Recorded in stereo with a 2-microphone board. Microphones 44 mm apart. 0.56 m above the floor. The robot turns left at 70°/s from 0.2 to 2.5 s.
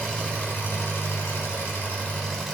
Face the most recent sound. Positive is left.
turn(degrees=0)